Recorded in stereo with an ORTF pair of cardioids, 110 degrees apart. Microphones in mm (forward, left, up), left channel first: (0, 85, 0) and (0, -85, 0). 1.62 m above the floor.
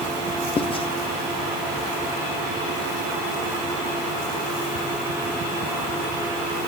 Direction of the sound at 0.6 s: 30° left.